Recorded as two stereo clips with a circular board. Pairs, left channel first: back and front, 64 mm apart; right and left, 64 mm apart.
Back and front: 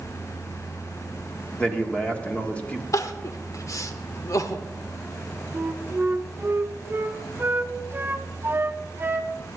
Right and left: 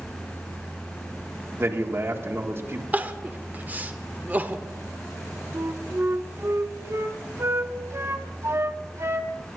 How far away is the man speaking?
About 1.7 m.